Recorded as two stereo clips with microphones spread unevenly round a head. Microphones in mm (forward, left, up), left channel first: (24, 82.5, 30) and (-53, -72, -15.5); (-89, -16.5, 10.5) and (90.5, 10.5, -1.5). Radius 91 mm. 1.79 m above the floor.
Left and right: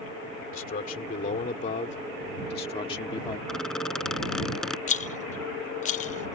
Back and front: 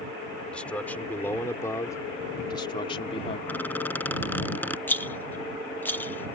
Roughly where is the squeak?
Behind left.